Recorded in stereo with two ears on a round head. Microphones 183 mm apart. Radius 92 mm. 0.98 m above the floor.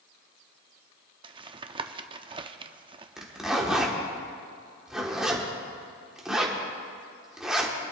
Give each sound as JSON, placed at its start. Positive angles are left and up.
{"t": 1.2, "sound": "tapping", "side_deg": -25, "distance_m": 0.5}
{"t": 3.2, "sound": "a zipper", "side_deg": -5, "distance_m": 1.5}